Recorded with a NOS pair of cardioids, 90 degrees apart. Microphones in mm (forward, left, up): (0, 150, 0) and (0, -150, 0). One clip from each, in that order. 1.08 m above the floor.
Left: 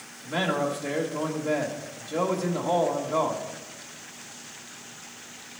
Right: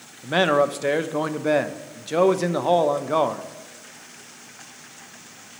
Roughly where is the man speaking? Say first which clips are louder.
Right 8 dB; ahead right.